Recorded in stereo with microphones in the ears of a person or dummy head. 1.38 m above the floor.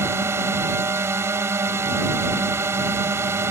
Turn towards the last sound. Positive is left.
turn(degrees=-15)  # may be behind; listen again after turning